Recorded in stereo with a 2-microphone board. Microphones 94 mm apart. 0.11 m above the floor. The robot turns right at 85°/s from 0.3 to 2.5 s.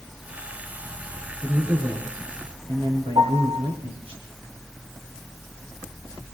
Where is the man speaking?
170° left, 5.5 m; by 4.2 s 100° right, 5.5 m.